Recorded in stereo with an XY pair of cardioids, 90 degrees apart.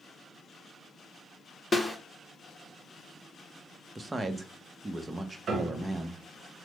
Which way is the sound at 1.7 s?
20° left.